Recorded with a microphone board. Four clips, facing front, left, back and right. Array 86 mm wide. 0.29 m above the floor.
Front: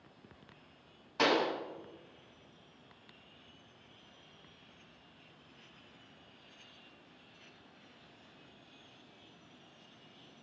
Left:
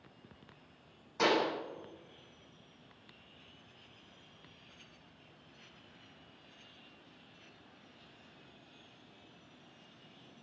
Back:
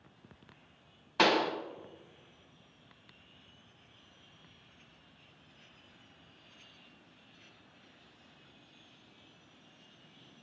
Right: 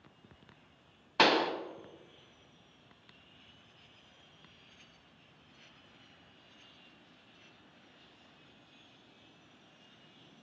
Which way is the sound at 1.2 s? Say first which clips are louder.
Right 3 dB, back 2 dB; 115° right.